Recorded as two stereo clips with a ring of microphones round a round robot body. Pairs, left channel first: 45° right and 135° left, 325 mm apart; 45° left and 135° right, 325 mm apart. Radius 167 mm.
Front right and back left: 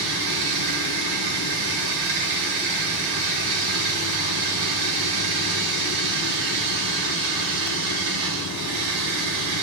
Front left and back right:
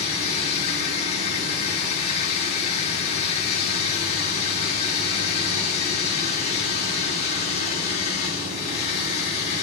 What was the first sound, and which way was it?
Running water, 115° left.